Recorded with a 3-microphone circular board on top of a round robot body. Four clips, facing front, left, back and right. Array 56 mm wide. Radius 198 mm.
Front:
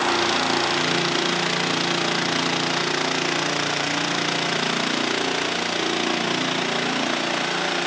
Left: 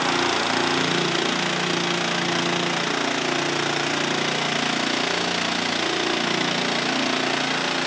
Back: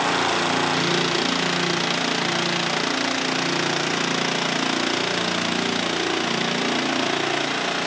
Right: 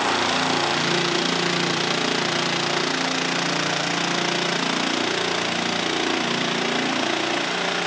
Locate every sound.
Only background noise.